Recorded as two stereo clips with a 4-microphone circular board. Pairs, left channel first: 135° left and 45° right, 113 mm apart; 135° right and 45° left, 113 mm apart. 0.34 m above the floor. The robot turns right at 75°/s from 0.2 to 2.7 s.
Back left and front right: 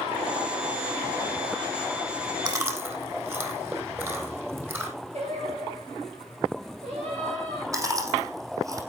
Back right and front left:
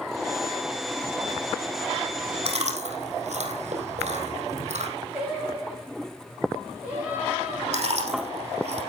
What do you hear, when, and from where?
2.5 s chewing: 10° left, 3.5 m; by 4.9 s 30° left, 3.5 m
5.1 s singing: 35° right, 9.5 m
7.7 s chewing: 15° left, 5 m